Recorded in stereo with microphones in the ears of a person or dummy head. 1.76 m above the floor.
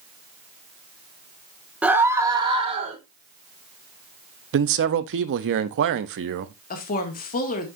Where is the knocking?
No knocking in this recording.